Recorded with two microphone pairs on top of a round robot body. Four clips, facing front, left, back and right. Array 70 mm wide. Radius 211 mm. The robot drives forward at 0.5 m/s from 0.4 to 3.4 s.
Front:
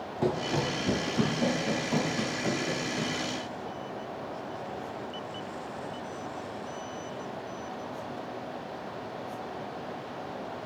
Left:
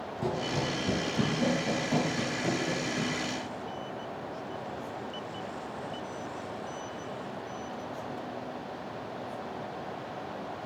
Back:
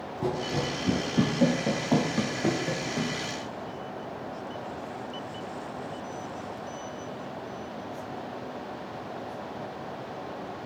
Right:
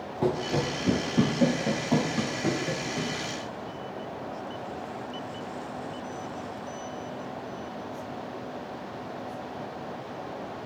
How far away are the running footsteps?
About 1.1 m.